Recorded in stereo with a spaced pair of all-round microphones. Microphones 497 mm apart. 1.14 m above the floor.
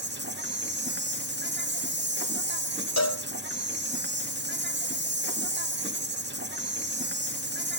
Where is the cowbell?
35° left (ahead or behind), 1.1 m.